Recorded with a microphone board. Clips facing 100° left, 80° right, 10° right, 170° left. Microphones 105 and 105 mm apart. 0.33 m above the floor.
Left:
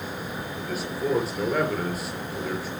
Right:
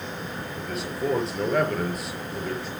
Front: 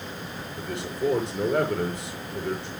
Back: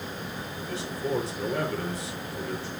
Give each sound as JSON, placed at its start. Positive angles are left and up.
{"t": 0.6, "sound": "a man speaking", "azimuth_deg": 10, "distance_m": 5.5}